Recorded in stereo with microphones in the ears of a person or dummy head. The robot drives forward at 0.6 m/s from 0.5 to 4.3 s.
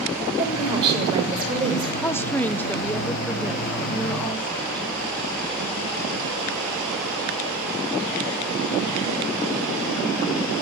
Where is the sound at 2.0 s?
10° left (ahead or behind), 0.8 m; by 4.9 s 5° left (ahead or behind), 2 m.